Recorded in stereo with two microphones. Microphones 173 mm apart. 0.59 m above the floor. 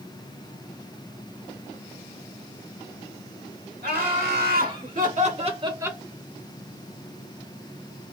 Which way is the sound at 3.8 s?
65° right (ahead or behind).